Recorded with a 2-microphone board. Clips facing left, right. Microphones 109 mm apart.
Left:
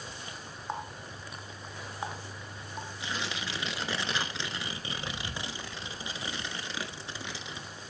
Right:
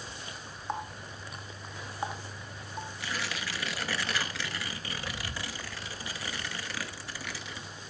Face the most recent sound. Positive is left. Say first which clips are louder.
# left 1 dB
turn(degrees=20)  # may be behind; listen again after turning